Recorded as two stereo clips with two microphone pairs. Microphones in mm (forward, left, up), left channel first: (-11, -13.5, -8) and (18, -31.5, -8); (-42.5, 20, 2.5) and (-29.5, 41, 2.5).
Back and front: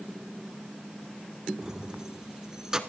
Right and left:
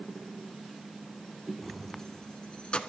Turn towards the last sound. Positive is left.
turn(degrees=-100)